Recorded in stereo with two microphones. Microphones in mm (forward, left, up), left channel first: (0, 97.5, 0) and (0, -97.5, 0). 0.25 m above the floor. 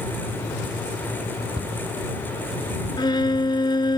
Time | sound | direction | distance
1.6 | a cupboard door | 30° right (ahead or behind) | ?
3.0 | a violin | 25° left (ahead or behind) | ?